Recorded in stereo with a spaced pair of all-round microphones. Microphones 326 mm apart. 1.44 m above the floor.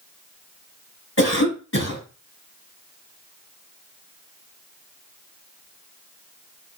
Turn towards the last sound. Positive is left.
turn(degrees=40)  # may be behind; listen again after turning